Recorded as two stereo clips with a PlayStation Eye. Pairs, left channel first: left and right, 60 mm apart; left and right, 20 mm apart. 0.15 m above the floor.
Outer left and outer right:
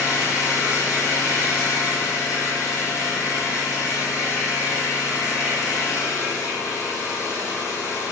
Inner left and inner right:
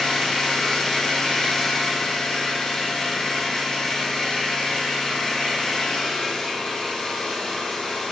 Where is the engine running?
55° left (ahead or behind), 6.5 m.